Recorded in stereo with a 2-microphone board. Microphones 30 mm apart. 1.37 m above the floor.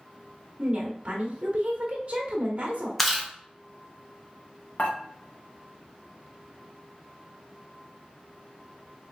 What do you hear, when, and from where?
0.6 s a woman speaking: 40° right (ahead or behind), 1.3 m
3.0 s chewing: 10° left (ahead or behind), 0.8 m
4.8 s dishes clattering: 55° left (ahead or behind), 0.9 m